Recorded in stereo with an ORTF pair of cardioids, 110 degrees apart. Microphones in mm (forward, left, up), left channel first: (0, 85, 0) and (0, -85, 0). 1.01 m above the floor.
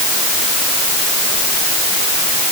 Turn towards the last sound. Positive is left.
No sound to turn to.